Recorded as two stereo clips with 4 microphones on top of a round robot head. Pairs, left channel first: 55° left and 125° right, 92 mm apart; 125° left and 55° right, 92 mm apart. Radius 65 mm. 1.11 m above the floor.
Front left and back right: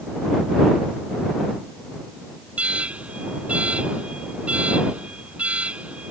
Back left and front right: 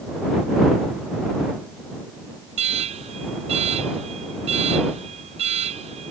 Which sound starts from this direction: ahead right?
An alarm, at 2.6 s.